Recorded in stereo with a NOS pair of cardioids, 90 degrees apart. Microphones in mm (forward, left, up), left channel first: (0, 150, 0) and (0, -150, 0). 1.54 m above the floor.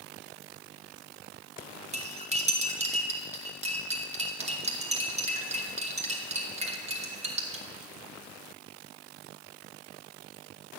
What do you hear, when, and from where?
1.9 s cutlery clinking: 25° right, 2 m